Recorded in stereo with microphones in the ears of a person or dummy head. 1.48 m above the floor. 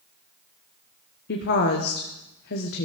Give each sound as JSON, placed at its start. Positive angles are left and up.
{"t": 1.3, "sound": "a woman speaking", "side_deg": 55, "distance_m": 1.1}